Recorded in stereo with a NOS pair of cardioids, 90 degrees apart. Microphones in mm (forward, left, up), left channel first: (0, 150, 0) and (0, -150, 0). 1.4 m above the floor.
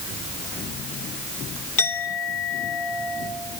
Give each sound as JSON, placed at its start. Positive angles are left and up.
{"t": 1.8, "sound": "a clink", "azimuth_deg": 50, "distance_m": 4.0}